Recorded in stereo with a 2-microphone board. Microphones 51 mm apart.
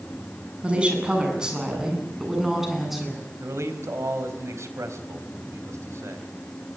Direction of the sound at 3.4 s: 75° right (ahead or behind).